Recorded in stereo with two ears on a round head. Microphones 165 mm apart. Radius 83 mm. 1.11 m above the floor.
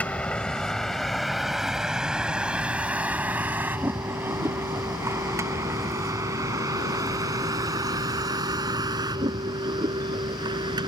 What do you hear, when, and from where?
0.0 s a vehicle: 10° left (ahead or behind); by 10.9 s 25° right (ahead or behind)